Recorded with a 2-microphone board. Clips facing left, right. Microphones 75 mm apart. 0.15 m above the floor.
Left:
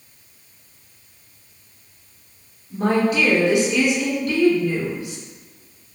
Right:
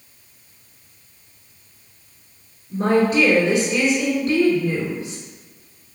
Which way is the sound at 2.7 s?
35° right (ahead or behind).